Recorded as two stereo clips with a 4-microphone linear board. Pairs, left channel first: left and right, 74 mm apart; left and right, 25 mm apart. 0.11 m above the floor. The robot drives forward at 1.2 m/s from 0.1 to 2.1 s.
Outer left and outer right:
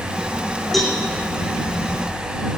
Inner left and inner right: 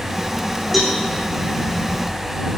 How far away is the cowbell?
About 2.5 m.